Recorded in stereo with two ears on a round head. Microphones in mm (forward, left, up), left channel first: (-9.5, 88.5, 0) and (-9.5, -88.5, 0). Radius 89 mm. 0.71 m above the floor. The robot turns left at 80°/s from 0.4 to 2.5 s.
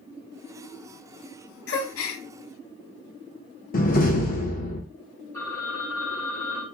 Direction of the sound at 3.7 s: 45° left (ahead or behind).